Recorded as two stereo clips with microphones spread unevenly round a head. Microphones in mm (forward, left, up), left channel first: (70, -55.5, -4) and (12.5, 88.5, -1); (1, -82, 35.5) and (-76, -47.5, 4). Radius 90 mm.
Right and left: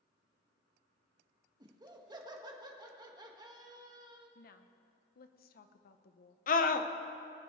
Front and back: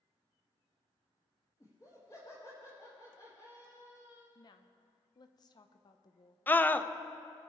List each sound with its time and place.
1.6 s laughter: 45° left, 1.8 m
4.3 s a woman speaking: 45° right, 0.8 m
6.5 s a scream: 105° right, 0.7 m